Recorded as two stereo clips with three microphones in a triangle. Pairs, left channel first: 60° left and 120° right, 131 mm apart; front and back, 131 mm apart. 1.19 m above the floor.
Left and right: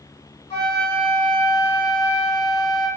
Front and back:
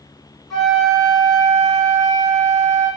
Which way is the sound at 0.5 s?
90° left.